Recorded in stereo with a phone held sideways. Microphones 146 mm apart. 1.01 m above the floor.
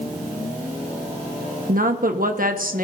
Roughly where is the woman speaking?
Right.